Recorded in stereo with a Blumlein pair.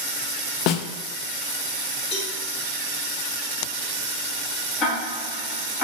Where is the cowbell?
30° left, 2.5 m.